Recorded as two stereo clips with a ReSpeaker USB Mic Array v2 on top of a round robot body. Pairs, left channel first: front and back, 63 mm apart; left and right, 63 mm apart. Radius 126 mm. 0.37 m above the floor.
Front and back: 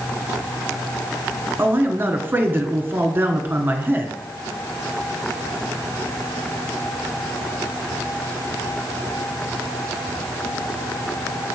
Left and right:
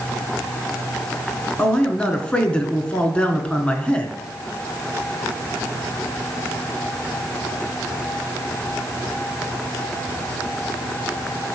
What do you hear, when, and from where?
1.6 s a man speaking: 150° left, 1.3 m